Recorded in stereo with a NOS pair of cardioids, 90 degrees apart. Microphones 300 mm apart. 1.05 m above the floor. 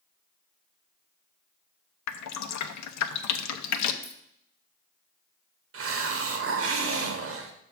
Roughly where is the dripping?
Ahead left.